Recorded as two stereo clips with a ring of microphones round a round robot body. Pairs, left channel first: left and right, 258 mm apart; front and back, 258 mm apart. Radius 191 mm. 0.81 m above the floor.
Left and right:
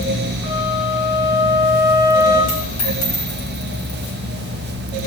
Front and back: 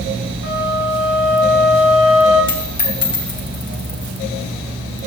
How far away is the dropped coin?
About 2.5 m.